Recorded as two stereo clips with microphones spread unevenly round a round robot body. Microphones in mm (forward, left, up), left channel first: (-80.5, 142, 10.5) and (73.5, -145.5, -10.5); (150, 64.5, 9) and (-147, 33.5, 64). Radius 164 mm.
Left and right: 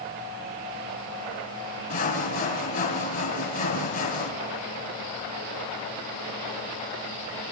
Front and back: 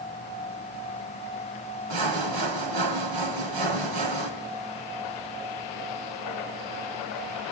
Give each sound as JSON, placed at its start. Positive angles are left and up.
{"t": 1.9, "sound": "sawing", "azimuth_deg": -175, "distance_m": 3.0}